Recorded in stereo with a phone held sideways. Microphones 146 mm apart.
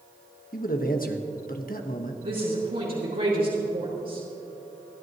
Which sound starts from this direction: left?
A man speaking, at 0.5 s.